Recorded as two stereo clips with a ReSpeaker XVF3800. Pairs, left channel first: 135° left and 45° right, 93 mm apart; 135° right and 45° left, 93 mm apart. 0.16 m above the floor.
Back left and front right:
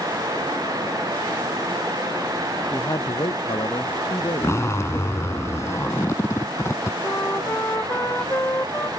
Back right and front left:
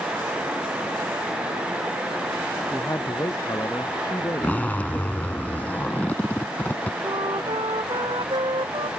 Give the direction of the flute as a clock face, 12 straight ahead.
10 o'clock.